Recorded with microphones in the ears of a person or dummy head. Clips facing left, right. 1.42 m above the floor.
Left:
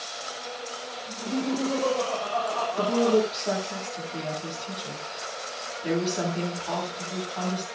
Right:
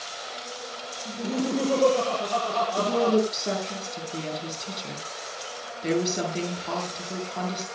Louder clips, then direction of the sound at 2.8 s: Left 1 dB; 30° right (ahead or behind).